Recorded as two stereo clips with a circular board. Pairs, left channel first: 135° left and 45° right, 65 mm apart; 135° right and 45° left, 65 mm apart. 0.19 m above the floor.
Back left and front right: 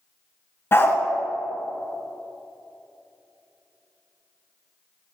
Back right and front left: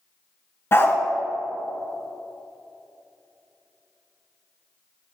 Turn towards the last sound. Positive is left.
turn(degrees=180)